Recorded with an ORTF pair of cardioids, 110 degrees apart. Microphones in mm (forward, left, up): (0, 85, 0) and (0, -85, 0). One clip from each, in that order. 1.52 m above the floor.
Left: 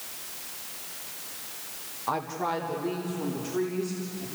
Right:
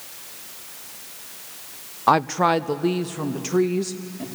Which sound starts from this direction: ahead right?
A woman speaking, at 2.1 s.